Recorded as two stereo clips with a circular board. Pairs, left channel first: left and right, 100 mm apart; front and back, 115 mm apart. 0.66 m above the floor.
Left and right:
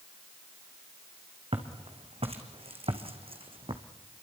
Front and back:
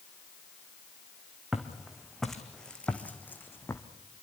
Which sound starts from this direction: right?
Footsteps, at 1.5 s.